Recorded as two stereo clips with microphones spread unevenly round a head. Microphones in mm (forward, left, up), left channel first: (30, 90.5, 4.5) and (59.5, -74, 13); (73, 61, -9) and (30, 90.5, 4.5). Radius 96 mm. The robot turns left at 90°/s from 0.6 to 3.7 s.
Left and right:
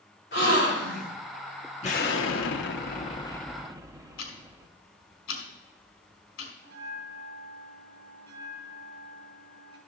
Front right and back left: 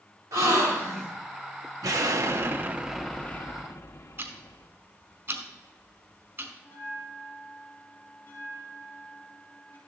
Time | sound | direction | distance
0.3 | a gasp | 140° left | 3 m
1.8 | an explosion | 160° left | 1.0 m
4.2 | ticking | 115° left | 2 m
6.6 | a bell | 90° right | 2.5 m